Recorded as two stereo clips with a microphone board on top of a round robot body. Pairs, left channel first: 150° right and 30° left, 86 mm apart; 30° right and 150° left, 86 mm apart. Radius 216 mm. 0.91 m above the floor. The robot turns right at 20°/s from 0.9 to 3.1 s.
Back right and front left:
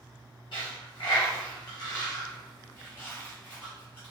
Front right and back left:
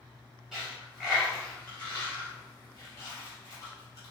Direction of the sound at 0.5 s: 120° right.